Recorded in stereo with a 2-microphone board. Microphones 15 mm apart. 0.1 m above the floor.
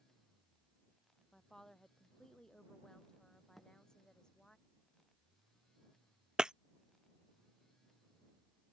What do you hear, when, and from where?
1.3 s a woman speaking: 25° left (ahead or behind); by 4.6 s 45° left (ahead or behind)
3.6 s a thud: 5° left (ahead or behind)
6.4 s breaking glass: 55° right (ahead or behind)